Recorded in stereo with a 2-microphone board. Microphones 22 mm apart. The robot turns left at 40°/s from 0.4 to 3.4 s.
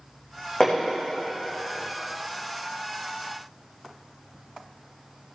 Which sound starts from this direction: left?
Hammering, at 0.6 s.